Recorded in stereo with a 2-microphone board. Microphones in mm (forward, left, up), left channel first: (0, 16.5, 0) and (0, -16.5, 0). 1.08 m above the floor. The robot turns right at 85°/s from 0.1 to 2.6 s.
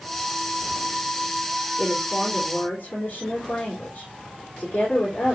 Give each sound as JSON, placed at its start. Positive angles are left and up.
{"t": 1.8, "sound": "a woman speaking", "azimuth_deg": -5, "distance_m": 3.5}